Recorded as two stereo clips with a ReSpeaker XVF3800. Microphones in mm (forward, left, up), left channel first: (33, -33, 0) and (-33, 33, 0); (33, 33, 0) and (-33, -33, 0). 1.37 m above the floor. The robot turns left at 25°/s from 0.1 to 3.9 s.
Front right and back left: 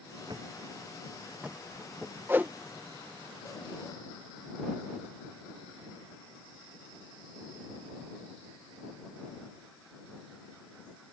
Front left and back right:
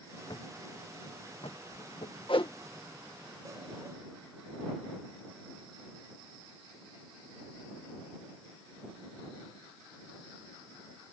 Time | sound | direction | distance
0.3 | a thud | 90° left | ?
2.3 | a whoosh | 70° left | ?